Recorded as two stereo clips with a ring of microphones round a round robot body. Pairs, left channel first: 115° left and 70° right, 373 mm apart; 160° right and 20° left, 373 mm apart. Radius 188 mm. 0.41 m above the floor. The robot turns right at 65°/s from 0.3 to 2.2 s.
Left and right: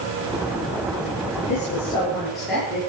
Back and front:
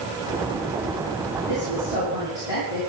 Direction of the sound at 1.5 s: 155° left.